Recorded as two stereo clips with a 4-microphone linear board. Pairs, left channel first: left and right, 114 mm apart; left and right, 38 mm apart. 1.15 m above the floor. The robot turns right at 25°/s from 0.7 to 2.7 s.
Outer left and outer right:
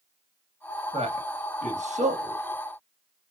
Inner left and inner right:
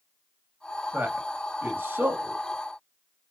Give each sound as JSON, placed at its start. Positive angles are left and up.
{"t": 0.9, "sound": "a man speaking", "side_deg": -60, "distance_m": 1.6}